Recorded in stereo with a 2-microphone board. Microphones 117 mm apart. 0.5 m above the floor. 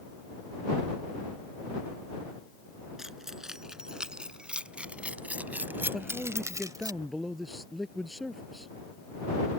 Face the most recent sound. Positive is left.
turn(degrees=0)  # may be behind; listen again after turning